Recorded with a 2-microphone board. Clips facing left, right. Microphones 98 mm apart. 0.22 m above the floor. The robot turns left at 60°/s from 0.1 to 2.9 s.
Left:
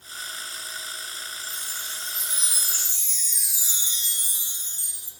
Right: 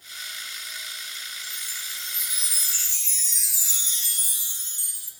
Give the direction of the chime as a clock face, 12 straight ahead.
4 o'clock.